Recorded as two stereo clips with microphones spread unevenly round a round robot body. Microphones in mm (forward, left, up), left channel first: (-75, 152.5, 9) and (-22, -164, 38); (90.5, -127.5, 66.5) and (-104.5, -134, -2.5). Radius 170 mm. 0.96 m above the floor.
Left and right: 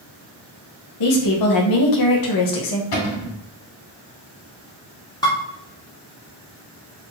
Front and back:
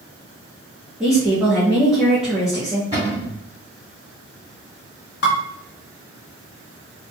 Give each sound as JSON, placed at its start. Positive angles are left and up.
{"t": 1.0, "sound": "a woman speaking", "azimuth_deg": 100, "distance_m": 1.4}
{"t": 2.9, "sound": "a cupboard door", "azimuth_deg": 95, "distance_m": 2.5}
{"t": 5.2, "sound": "dishes clattering", "azimuth_deg": 20, "distance_m": 1.3}